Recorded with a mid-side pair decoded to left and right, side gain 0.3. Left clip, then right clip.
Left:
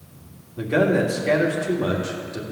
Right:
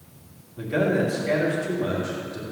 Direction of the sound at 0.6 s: 55° left.